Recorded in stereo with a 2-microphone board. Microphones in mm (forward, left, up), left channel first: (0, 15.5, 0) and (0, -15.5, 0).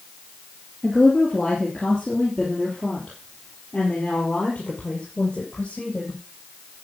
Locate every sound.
0.8 s a woman speaking: 5° left (ahead or behind), 3.5 m; by 6.2 s 35° left (ahead or behind), 5.5 m